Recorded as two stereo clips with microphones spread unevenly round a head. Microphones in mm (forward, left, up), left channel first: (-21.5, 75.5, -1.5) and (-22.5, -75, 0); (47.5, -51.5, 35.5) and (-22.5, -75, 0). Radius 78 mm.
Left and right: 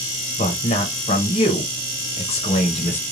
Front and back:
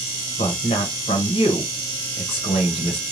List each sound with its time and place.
0.4 s a man speaking: 35° left, 0.7 m